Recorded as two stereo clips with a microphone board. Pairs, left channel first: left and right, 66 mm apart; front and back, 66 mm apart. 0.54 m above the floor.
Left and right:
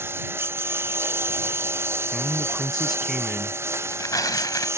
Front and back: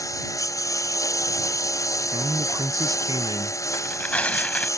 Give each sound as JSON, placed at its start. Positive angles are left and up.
{"t": 0.0, "sound": "a lawn mower", "azimuth_deg": -35}
{"t": 2.1, "sound": "a man speaking", "azimuth_deg": -175}
{"t": 3.7, "sound": "tearing paper", "azimuth_deg": 65}